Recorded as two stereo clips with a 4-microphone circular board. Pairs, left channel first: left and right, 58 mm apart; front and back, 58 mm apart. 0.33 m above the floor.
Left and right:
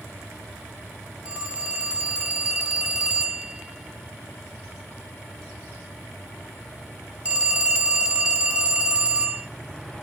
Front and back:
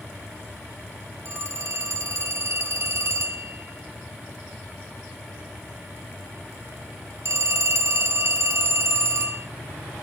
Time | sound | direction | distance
1.2 | a phone ringing | 155° right | 1.4 m